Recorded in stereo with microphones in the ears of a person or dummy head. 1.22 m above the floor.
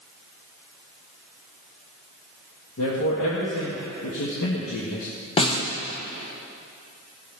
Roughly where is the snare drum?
Left.